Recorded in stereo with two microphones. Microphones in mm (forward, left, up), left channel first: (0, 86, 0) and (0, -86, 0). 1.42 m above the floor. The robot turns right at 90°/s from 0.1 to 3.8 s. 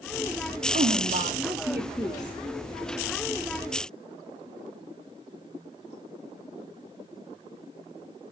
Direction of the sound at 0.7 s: 105° right.